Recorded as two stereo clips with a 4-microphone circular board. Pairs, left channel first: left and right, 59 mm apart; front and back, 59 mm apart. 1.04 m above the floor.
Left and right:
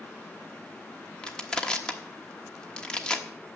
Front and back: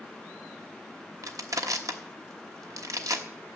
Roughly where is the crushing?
Behind.